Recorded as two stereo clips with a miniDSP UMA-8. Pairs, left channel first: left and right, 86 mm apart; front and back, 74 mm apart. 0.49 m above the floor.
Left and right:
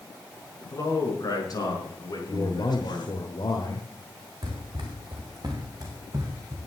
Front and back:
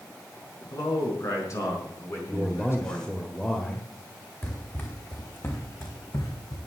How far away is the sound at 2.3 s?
About 1.6 m.